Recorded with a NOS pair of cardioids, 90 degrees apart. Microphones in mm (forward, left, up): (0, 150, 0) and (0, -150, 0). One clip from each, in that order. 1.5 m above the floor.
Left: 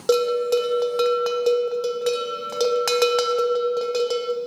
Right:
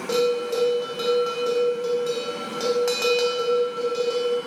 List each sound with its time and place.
0.1 s a bell: 55° left, 0.8 m